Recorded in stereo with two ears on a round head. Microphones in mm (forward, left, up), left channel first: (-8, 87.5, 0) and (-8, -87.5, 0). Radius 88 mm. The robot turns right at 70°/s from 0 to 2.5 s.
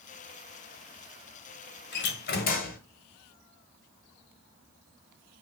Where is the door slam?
80° left, 1.7 m; by 2.8 s 120° left, 1.7 m.